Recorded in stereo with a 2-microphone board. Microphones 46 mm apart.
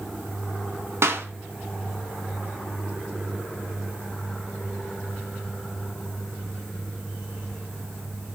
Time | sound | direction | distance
1.0 | a clap | 60° right (ahead or behind) | 2 m